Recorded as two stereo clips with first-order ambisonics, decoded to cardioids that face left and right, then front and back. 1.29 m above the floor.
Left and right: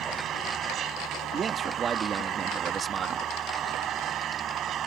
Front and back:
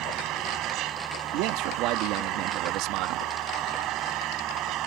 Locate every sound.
0.0 s an engine running: 140° right
1.3 s a man speaking: 155° right